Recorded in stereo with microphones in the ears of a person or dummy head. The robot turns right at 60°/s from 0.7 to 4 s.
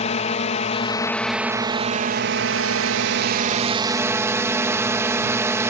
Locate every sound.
0.0 s a drone: 145° left; by 5.7 s 20° right